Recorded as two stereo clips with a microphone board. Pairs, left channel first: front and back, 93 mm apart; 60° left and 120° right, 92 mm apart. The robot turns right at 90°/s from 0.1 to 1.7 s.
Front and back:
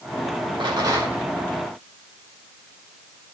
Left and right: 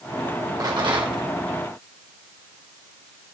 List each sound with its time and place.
0.6 s a rattle: 160° right, 1.8 m; by 1.2 s 105° right, 1.8 m